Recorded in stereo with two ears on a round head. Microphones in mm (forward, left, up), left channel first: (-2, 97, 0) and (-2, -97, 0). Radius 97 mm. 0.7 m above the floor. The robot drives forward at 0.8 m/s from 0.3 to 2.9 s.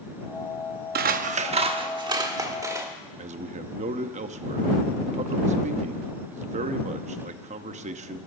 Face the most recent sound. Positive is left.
turn(degrees=-30)  # may be behind; listen again after turning